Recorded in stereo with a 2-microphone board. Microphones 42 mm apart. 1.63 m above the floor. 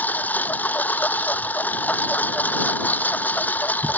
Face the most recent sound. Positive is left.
turn(degrees=45)  # may be behind; listen again after turning